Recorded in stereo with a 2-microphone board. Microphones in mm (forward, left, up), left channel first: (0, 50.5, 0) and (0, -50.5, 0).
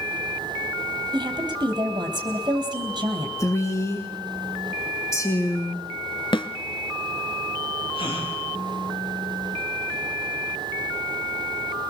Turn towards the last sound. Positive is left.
turn(degrees=55)  # may be behind; listen again after turning